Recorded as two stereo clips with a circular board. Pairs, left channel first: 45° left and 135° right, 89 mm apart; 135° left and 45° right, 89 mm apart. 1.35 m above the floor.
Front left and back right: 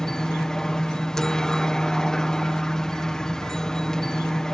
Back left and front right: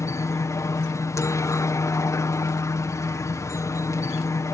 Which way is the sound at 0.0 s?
125° left.